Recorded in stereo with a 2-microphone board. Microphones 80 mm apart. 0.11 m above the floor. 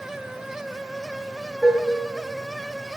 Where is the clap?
No clap in this recording.